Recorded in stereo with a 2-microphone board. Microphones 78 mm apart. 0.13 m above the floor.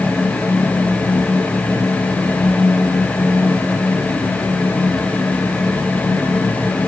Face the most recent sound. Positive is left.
No sound to turn to.